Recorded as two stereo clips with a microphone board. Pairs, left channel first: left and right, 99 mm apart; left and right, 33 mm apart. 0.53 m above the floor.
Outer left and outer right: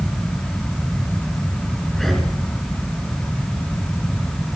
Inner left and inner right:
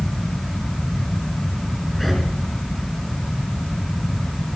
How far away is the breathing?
About 4.5 m.